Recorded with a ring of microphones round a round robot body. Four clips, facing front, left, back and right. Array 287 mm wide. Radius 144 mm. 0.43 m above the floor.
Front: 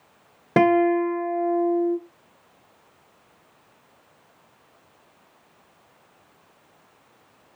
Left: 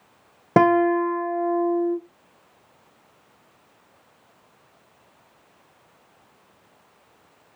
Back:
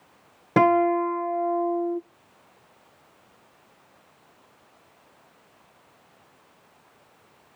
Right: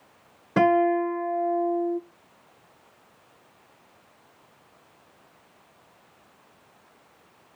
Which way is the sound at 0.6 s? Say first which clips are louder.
Left 3 dB, front 1 dB; 75° left.